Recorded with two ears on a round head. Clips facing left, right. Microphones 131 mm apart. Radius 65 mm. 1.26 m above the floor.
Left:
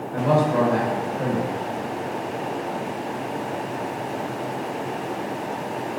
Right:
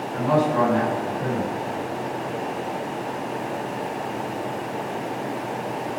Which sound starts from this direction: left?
A man speaking, at 0.1 s.